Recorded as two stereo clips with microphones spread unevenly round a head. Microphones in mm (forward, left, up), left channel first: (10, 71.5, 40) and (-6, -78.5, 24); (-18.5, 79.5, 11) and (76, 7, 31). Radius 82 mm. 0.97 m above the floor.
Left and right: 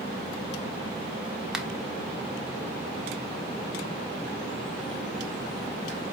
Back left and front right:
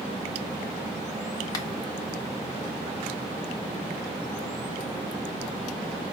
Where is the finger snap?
Straight behind, 0.5 m.